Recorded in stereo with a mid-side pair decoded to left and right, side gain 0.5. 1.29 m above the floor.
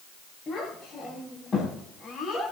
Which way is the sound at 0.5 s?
40° left.